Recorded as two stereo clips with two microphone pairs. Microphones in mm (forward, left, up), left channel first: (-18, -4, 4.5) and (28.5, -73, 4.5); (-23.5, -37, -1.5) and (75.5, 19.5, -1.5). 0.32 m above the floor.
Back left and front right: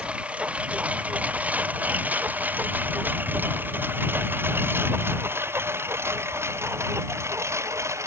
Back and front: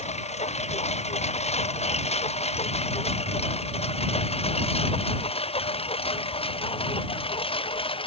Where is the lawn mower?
130° right; by 8.1 s 110° right.